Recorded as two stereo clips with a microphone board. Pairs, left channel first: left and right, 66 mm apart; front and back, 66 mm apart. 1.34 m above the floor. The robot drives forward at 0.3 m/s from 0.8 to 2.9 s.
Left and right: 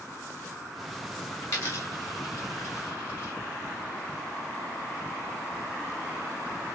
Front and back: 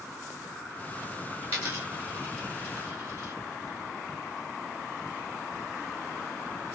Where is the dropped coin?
130° left, 1.8 m; by 3.3 s 140° left, 2 m.